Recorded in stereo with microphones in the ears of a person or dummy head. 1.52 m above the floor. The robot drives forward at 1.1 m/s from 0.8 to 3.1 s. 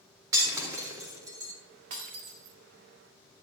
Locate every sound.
0.3 s breaking glass: 20° right (ahead or behind), 4 m
1.9 s breaking glass: 40° right (ahead or behind), 1.9 m; by 2.6 s 55° right (ahead or behind), 1.5 m